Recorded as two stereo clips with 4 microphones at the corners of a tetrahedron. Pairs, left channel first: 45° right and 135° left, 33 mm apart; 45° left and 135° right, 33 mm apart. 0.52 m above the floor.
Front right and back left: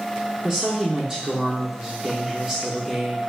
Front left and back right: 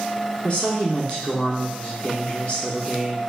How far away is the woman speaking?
About 1.1 m.